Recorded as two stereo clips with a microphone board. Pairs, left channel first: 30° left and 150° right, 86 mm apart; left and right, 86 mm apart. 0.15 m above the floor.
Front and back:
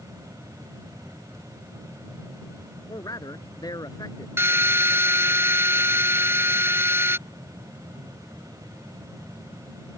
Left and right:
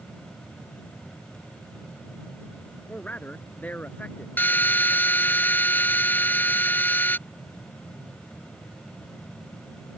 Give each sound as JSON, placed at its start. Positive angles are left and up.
{"t": 2.9, "sound": "a man speaking", "azimuth_deg": 25}
{"t": 4.4, "sound": "a drill", "azimuth_deg": 155}